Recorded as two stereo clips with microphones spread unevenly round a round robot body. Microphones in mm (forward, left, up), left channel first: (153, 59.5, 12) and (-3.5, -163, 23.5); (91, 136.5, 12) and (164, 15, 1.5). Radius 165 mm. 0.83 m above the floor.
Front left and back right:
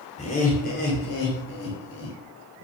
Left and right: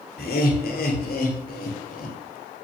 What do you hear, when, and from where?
0.2 s laughter: 125° left, 2.5 m; by 2.2 s 105° left, 3.5 m